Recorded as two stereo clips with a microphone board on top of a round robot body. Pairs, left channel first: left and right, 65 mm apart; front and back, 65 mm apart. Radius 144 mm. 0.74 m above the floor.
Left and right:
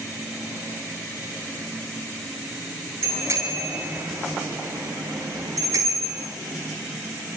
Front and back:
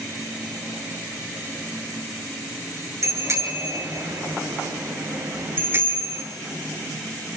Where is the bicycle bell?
140° right, 10 m; by 6.2 s 125° right, 9.5 m.